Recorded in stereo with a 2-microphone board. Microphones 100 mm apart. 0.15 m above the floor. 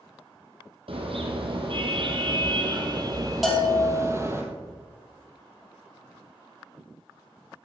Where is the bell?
Centre (ahead or behind), 4.5 m.